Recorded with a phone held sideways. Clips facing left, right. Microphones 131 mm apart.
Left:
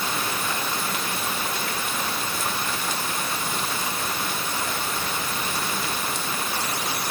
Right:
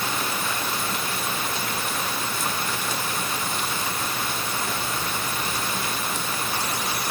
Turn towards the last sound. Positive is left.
No sound to turn to.